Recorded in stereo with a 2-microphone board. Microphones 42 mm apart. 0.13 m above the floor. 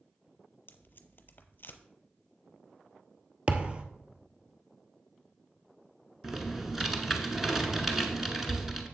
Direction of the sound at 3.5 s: 30° right (ahead or behind).